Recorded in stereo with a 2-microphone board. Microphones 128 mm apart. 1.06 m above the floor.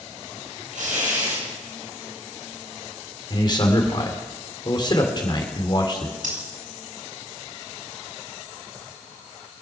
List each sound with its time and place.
0.7 s tearing paper: 80° right, 7.5 m
3.3 s a man speaking: 35° left (ahead or behind), 2.5 m
6.2 s breathing: 85° right, 5.5 m